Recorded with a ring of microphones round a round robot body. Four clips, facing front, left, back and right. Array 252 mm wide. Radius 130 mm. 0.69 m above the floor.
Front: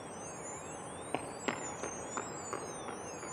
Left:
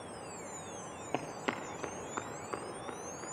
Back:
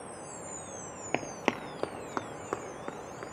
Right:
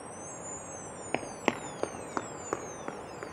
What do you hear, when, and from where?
1.1 s running footsteps: 145° right, 0.7 m; by 3.2 s 125° right, 3 m